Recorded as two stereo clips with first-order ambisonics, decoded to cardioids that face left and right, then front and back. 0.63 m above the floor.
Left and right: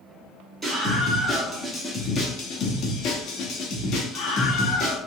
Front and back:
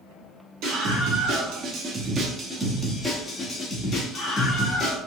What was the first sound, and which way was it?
A scream, 165° right.